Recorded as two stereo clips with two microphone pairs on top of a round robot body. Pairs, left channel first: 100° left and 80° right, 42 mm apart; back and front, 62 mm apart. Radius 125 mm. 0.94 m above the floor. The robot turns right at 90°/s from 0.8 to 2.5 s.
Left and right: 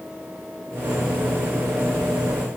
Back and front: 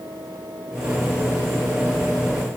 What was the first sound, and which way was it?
Only background noise.